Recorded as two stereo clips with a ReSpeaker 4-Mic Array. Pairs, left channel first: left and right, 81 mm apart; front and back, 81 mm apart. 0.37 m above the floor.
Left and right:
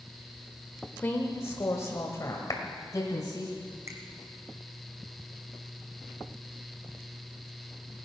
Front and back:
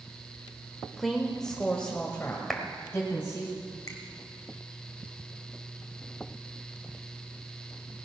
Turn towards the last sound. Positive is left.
turn(degrees=-45)